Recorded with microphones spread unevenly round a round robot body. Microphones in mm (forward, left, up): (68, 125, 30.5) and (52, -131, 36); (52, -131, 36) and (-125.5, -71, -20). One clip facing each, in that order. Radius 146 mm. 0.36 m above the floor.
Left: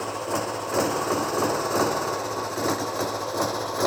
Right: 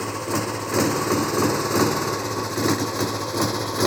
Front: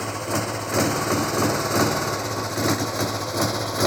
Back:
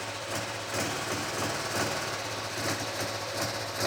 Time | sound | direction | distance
0.0 | a motorcycle | 35° right | ?